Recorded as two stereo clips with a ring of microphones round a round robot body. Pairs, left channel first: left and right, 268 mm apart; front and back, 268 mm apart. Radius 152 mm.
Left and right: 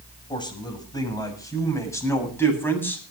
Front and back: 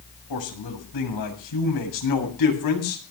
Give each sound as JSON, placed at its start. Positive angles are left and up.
{"t": 0.3, "sound": "a man speaking", "azimuth_deg": 15, "distance_m": 7.0}